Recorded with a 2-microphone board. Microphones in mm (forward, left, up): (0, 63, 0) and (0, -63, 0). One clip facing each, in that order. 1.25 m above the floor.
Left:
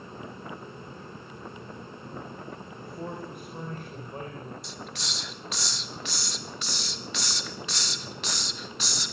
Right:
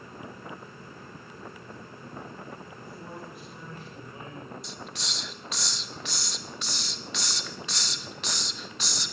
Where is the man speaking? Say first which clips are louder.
Left 4 dB; 55° left (ahead or behind), 5.5 m; by 4.5 s 45° left (ahead or behind), 6 m.